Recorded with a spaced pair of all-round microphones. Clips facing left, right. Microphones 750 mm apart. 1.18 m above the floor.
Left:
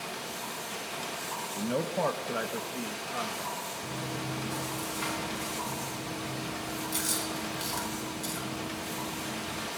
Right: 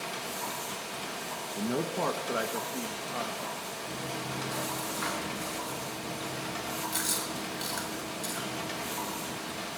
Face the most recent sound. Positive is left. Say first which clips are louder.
# left 2 dB
turn(degrees=55)  # may be behind; listen again after turning